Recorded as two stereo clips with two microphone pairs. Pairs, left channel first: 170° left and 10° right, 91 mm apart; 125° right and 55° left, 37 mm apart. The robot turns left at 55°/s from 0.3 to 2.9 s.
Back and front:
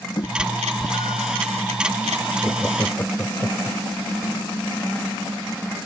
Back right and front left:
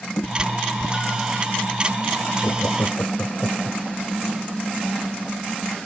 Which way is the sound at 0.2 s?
155° right.